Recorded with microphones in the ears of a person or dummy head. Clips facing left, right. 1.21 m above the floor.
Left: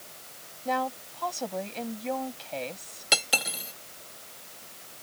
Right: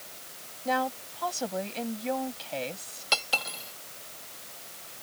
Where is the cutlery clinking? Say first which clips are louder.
Left 2 dB; 20° left (ahead or behind).